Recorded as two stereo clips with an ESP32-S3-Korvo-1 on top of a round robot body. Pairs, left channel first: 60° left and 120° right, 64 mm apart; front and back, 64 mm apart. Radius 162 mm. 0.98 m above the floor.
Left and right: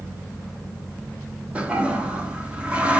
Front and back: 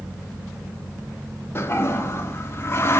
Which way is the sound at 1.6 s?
50° right.